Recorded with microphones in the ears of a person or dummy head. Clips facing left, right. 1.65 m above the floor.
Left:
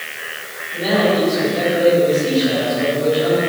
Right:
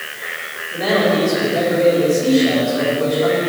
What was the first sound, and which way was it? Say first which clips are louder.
A man speaking: even; 70° right (ahead or behind).